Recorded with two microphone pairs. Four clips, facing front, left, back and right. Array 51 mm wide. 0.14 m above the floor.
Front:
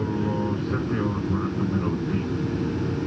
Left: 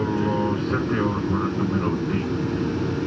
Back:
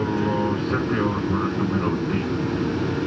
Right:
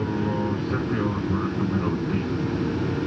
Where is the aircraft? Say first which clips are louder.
Left 3 dB, back 4 dB; 140° left; by 3.1 s 165° left.